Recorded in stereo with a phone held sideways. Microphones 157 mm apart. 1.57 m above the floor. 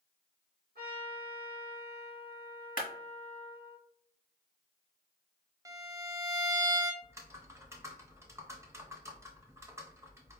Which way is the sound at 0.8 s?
75° right (ahead or behind).